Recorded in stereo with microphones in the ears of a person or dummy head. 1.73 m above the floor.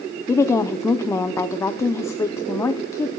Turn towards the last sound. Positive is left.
turn(degrees=10)  # may be behind; listen again after turning